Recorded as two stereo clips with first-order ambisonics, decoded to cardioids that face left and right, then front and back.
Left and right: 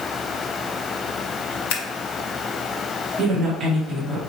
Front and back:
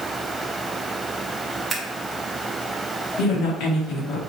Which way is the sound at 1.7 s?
100° left.